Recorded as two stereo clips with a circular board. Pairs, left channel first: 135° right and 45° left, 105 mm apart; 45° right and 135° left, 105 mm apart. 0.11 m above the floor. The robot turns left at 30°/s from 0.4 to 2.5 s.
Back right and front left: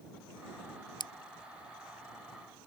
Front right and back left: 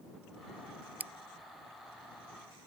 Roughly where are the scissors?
Behind right.